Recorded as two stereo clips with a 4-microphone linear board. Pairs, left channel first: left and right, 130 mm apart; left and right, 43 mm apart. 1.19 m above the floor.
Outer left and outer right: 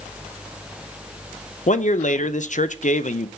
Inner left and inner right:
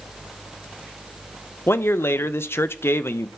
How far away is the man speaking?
About 0.6 m.